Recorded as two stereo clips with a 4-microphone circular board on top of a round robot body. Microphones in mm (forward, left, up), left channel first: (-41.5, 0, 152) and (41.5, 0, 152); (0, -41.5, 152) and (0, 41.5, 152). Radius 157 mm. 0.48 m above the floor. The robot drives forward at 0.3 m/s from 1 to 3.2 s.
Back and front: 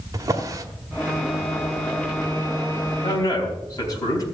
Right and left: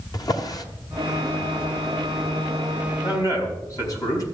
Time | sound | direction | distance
0.1 | a drawer | 50° right | 1.6 m
3.0 | a man speaking | 135° right | 4.5 m